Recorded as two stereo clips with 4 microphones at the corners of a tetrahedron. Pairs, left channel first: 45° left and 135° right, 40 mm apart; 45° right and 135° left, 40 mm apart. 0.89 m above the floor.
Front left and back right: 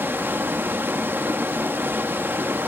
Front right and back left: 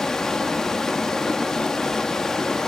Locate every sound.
0.0 s running water: 120° right, 1.5 m